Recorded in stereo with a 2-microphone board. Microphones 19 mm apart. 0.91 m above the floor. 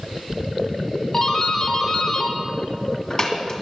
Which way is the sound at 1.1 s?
40° left (ahead or behind).